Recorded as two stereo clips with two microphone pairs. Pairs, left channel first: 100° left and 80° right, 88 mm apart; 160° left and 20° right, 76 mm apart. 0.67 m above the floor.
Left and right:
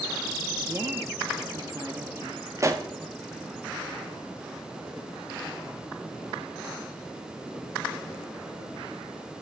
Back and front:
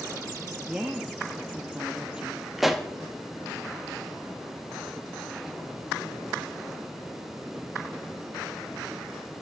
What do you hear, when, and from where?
0.7 s a woman speaking: 85° right, 0.8 m
2.6 s a pop: 105° right, 1.0 m